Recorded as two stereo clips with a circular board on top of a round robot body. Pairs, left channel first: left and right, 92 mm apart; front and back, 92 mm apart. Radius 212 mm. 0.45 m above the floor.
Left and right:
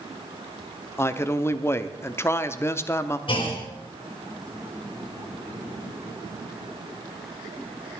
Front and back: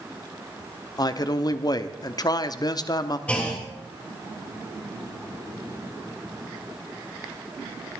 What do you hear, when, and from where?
1.0 s a man speaking: 30° left, 1.0 m
3.3 s a clunk: 75° left, 3.5 m